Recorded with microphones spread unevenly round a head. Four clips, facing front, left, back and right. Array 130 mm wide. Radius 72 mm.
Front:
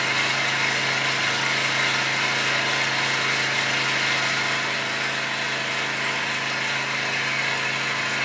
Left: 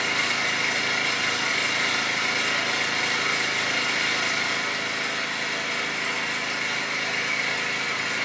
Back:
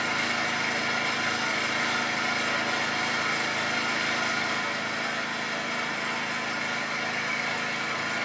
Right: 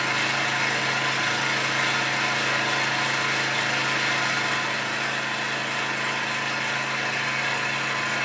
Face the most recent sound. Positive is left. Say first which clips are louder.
# right 2 dB, front 3 dB
turn(degrees=-45)